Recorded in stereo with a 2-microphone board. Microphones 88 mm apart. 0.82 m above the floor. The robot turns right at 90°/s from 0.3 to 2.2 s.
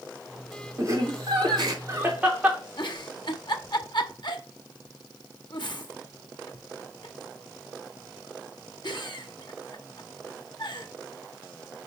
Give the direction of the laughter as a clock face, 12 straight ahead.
5 o'clock.